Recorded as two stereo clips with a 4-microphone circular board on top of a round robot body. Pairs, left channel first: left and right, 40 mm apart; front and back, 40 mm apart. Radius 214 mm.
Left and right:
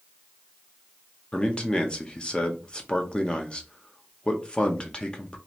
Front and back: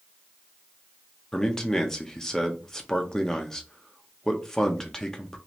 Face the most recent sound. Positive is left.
turn(degrees=65)